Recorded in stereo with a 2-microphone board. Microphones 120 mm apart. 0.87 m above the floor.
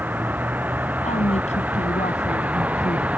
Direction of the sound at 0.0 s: 15° right (ahead or behind).